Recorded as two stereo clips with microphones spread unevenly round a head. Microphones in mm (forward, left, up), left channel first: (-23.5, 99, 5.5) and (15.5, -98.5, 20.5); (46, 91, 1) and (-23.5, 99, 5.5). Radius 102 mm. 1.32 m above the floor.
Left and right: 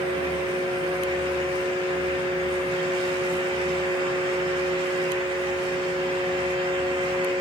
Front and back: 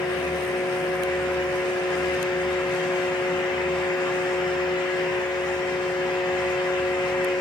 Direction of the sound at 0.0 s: 15° right.